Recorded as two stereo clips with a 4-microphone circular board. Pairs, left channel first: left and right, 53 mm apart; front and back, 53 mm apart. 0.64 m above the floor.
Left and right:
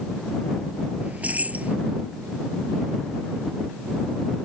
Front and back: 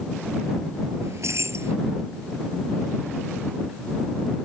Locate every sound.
1.0 s keys jangling: 150° right